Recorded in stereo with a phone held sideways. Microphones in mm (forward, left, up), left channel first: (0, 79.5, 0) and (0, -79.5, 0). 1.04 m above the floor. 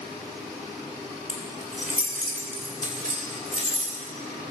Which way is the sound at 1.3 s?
60° right (ahead or behind).